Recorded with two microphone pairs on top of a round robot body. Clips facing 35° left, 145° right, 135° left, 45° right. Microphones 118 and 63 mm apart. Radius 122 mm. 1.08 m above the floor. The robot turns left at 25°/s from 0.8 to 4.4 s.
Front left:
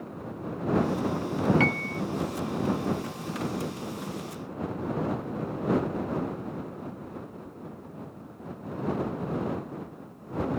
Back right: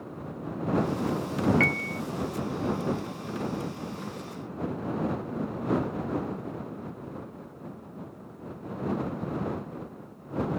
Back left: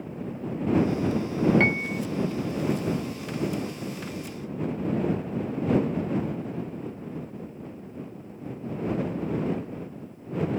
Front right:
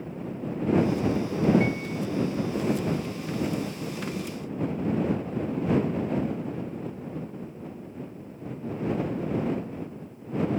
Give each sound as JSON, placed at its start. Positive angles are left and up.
{"t": 1.6, "sound": "a piano", "azimuth_deg": 110}